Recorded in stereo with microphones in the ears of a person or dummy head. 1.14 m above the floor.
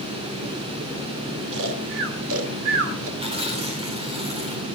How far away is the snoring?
About 2.5 m.